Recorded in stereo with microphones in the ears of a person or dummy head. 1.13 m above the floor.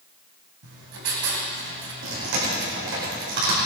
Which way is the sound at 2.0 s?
65° right (ahead or behind).